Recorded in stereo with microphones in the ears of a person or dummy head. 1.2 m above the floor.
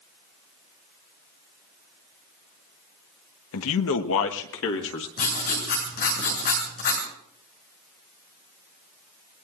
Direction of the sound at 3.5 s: 75° left (ahead or behind).